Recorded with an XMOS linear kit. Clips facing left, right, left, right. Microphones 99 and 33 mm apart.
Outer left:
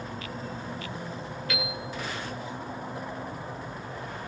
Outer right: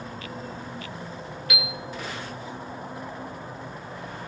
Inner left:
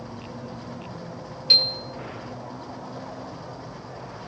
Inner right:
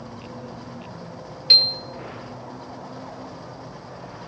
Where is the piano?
15° right (ahead or behind), 1.1 m.